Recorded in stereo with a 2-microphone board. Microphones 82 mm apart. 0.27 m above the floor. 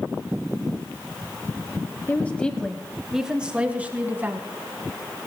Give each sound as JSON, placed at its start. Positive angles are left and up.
{"t": 2.1, "sound": "a woman speaking", "side_deg": 25, "distance_m": 1.2}